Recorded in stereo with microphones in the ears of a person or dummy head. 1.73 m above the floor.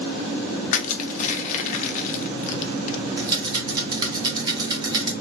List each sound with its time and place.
0.7 s crushing: 40° left (ahead or behind), 0.6 m
3.2 s a rattle: 25° right (ahead or behind), 0.8 m